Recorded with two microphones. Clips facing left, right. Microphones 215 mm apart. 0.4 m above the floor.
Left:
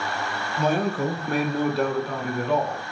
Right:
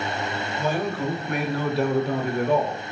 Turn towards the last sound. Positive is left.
turn(degrees=-60)  # may be behind; listen again after turning